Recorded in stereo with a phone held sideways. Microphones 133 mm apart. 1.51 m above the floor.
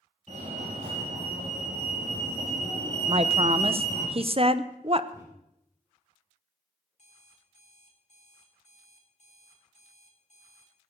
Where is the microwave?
25° right (ahead or behind), 8 m.